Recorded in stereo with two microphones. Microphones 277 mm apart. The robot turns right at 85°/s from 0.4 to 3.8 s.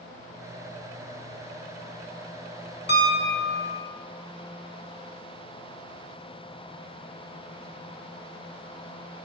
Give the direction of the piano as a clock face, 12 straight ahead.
7 o'clock.